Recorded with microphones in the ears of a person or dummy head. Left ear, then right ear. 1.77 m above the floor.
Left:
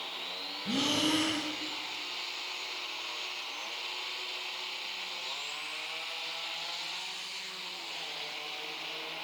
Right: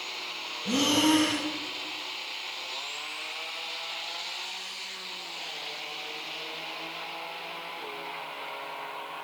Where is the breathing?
5° right (ahead or behind), 0.7 m.